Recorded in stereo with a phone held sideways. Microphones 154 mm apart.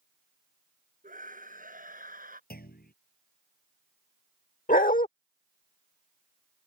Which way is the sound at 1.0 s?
60° right (ahead or behind).